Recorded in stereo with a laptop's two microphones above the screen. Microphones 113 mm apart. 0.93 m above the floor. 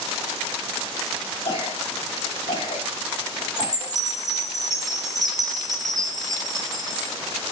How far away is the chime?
About 0.8 m.